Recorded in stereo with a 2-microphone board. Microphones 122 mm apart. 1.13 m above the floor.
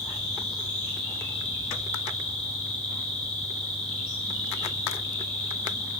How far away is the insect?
About 5.5 m.